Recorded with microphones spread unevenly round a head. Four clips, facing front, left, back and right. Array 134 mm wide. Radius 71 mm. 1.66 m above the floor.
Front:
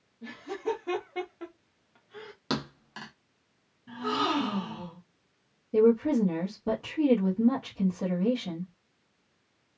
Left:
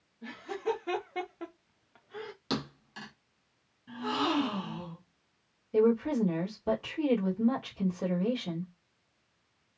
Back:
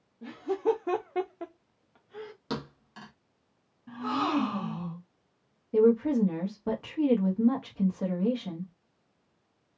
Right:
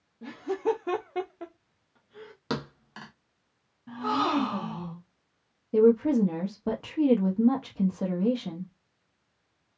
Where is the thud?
90° right, 1.0 m.